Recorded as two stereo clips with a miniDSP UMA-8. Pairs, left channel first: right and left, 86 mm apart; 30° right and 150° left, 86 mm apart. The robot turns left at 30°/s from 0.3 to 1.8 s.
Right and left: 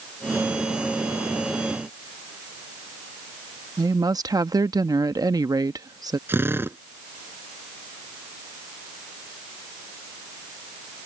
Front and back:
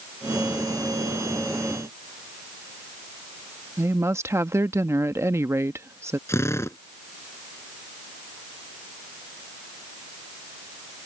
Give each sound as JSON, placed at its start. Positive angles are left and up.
{"t": 3.8, "sound": "a woman speaking", "azimuth_deg": 105}
{"t": 6.3, "sound": "a drill", "azimuth_deg": 25}